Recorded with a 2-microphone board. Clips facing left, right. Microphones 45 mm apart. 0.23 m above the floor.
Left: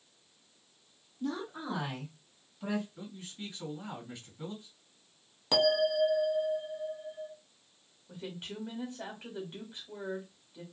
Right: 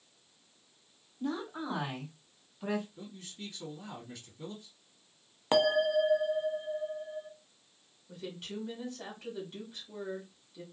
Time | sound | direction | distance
1.2 | a woman speaking | 25° right (ahead or behind) | 1.2 m
3.0 | a man speaking | 20° left (ahead or behind) | 2 m
5.5 | a bell | 35° right (ahead or behind) | 0.5 m
8.1 | a woman speaking | 25° left (ahead or behind) | 1.1 m